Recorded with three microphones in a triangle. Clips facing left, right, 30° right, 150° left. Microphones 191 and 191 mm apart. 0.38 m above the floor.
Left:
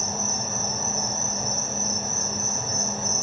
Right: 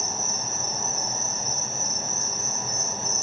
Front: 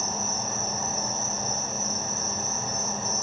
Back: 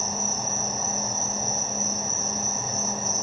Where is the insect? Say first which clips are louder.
Left 3 dB, back 1 dB; 65° left, 6.5 m.